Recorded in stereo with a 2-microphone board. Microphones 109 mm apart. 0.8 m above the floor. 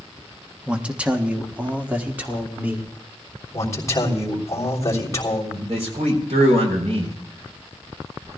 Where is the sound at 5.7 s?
75° right (ahead or behind), 4 m.